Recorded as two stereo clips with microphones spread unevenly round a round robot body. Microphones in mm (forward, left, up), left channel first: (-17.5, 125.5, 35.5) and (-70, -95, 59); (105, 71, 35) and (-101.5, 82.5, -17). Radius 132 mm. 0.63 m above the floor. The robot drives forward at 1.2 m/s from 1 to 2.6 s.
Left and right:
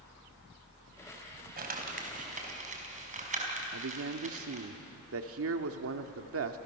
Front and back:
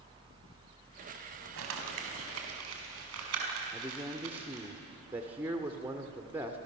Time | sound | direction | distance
1.6 | crumpling | 155° right | 4 m
3.7 | a man speaking | 110° right | 1.9 m